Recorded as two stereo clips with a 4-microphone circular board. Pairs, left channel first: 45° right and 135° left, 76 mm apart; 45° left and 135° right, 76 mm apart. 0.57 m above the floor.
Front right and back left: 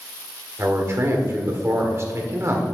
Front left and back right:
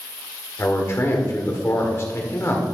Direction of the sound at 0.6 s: 90° left.